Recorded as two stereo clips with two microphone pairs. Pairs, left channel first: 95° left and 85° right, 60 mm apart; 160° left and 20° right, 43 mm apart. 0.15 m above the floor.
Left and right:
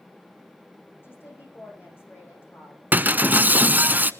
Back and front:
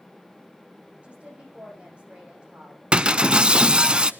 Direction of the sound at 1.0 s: 45° left.